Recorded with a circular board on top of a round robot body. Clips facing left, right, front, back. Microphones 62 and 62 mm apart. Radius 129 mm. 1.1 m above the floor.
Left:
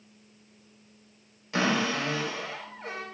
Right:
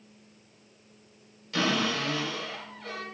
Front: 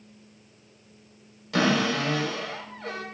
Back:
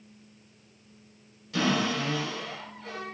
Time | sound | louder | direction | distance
1.5 | a cupboard door | left 1 dB, front 4 dB | 25° left | 4.5 m